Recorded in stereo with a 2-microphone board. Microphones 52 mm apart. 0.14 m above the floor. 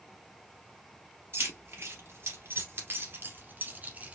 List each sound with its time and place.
1.3 s keys jangling: 50° right (ahead or behind), 2.5 m; by 4.1 s 30° right (ahead or behind), 1.2 m